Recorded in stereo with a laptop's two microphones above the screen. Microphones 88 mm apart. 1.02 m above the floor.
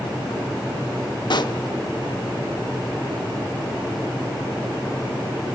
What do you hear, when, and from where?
1.3 s a pop: 60° left (ahead or behind), 0.9 m